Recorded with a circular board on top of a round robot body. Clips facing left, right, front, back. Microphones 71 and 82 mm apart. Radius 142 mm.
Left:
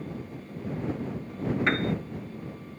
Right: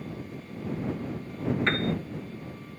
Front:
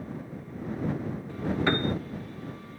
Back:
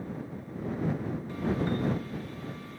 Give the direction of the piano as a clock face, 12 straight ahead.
12 o'clock.